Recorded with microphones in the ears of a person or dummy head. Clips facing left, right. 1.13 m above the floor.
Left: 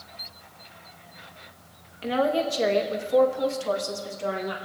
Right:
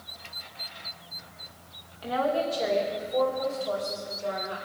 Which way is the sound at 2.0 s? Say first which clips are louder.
Left 3 dB; 30° left (ahead or behind).